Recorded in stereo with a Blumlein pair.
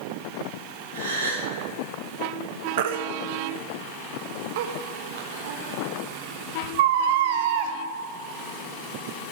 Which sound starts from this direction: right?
A gasp, at 0.9 s.